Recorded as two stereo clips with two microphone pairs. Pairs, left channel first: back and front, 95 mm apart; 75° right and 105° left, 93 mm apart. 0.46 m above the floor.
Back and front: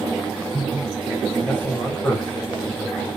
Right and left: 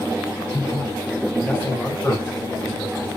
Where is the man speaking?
120° right, 1.4 m.